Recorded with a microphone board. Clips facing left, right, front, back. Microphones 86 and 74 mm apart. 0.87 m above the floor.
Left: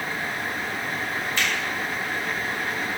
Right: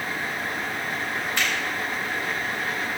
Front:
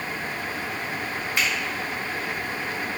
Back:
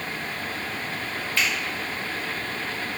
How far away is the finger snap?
About 3.5 m.